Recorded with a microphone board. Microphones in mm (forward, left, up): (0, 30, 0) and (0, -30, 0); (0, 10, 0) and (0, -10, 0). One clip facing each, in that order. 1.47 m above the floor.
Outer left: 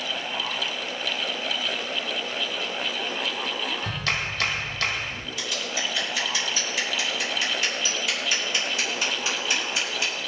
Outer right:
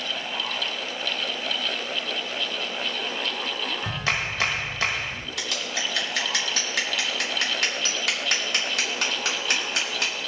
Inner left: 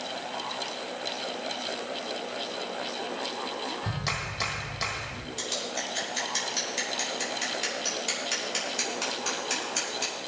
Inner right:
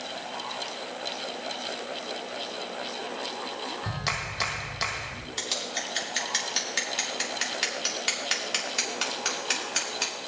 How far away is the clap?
About 1.6 m.